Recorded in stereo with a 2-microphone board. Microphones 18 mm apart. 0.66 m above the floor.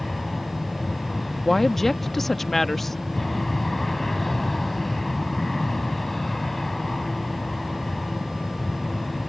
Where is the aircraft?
15° left (ahead or behind).